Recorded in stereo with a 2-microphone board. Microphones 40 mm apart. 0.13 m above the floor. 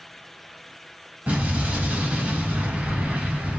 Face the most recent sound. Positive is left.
turn(degrees=-35)  # may be behind; listen again after turning